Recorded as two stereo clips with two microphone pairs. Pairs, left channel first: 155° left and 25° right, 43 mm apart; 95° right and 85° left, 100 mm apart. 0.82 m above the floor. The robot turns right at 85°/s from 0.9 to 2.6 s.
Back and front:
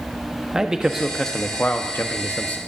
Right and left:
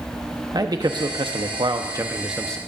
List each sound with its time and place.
0.5 s a man speaking: 50° left, 0.9 m; by 2.6 s 170° right, 0.9 m